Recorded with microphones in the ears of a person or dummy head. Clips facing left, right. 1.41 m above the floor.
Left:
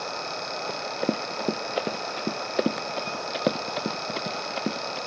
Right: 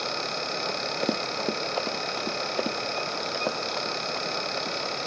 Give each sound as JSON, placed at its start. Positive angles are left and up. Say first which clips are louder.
{"t": 0.7, "sound": "running footsteps", "louder": "left 2 dB", "side_deg": 5}